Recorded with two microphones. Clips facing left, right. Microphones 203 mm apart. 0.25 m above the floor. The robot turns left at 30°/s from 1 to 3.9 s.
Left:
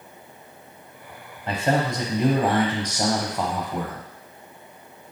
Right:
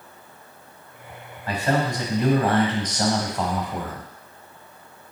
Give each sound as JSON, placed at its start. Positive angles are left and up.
{"t": 1.5, "sound": "a man speaking", "side_deg": 25, "distance_m": 1.0}